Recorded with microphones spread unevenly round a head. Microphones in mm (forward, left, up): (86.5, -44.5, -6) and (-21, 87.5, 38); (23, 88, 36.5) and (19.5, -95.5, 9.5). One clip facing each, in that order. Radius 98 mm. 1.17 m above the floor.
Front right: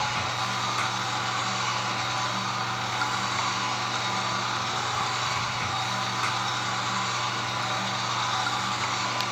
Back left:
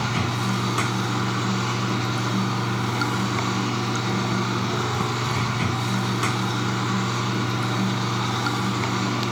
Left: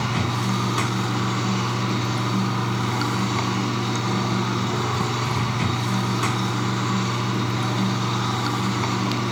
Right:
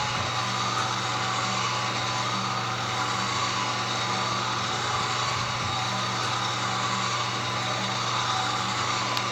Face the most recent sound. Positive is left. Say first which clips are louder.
# back left 6 dB, left 7 dB
turn(degrees=105)